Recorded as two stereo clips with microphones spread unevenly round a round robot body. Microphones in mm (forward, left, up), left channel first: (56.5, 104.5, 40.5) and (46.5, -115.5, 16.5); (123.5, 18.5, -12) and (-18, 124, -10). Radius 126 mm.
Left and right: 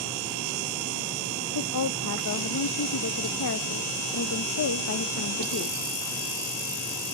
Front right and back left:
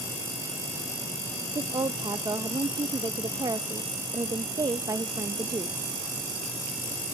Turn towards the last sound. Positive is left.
turn(degrees=75)